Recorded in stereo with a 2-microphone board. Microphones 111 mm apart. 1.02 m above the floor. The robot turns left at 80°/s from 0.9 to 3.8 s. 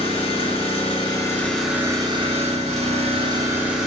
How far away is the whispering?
I don't hear whispering.